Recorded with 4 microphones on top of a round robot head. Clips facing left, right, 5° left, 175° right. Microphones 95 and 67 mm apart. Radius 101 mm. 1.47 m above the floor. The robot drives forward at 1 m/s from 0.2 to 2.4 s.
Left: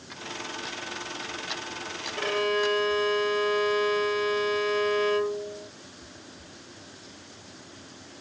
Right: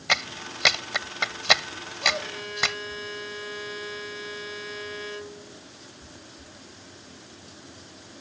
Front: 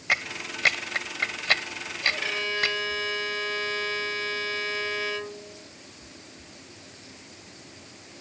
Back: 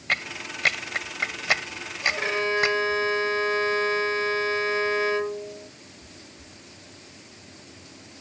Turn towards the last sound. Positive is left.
turn(degrees=130)